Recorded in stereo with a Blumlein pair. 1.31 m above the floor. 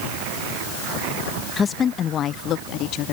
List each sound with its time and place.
1.6 s a woman speaking: 15° left; by 3.1 s 40° left